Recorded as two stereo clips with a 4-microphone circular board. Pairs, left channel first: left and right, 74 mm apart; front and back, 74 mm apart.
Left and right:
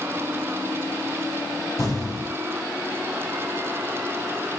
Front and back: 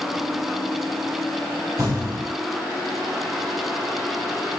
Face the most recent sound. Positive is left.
turn(degrees=135)